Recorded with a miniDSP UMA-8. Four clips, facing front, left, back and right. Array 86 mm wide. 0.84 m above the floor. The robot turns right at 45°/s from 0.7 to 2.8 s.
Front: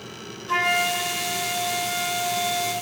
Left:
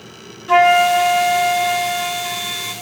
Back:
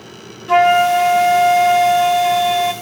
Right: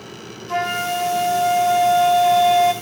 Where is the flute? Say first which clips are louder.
Left 11 dB, back 13 dB; 125° left, 1.4 m; by 2.7 s 145° right, 1.4 m.